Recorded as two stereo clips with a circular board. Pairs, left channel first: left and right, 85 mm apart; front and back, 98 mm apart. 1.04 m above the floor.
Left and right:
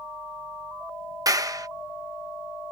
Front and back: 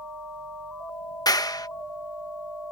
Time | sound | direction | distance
1.3 | a clap | 45° right | ?